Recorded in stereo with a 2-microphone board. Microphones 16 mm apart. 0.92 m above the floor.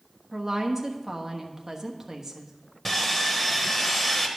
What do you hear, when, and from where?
0.3 s a woman speaking: 35° right (ahead or behind), 1.2 m
2.9 s sawing: 20° left (ahead or behind), 1.2 m